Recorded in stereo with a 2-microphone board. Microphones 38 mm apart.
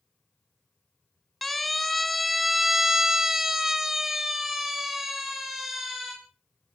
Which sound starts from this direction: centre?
A siren, at 1.4 s.